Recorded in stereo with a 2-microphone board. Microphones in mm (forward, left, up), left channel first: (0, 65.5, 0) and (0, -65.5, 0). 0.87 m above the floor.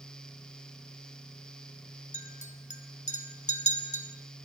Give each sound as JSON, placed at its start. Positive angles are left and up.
{"t": 2.1, "sound": "a clink", "side_deg": 65, "distance_m": 0.9}